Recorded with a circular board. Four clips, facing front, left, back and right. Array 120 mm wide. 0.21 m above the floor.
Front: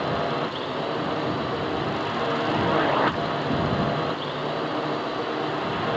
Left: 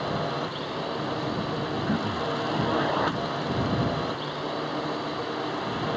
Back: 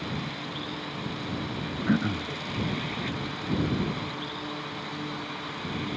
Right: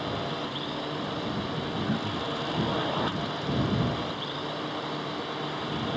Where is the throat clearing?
170° left.